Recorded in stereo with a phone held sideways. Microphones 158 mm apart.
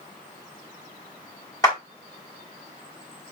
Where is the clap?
25° left (ahead or behind), 3.5 m.